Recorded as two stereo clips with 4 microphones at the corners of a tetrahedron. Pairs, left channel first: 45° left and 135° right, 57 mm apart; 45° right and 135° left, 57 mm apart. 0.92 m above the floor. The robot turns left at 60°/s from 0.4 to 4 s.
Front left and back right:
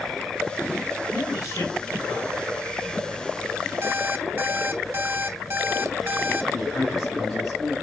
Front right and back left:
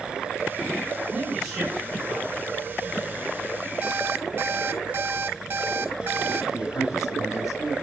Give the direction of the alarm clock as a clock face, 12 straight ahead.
6 o'clock.